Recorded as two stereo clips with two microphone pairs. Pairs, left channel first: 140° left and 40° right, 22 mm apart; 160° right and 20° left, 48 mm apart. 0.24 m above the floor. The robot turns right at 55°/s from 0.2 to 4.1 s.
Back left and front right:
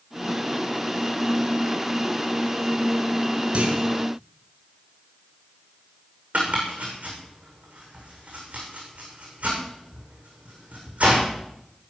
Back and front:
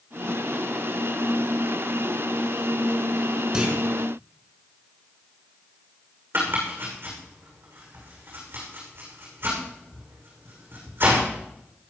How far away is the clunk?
About 3.5 m.